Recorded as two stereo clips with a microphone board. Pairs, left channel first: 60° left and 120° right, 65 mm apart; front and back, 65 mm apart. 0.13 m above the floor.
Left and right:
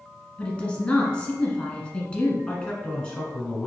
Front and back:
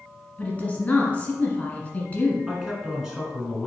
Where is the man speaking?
110° left, 1.3 m.